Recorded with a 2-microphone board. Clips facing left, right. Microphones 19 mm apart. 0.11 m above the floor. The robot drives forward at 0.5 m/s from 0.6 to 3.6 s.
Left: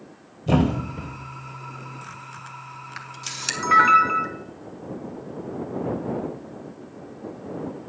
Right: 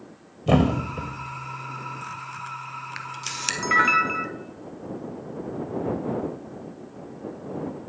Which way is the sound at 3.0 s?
15° right (ahead or behind).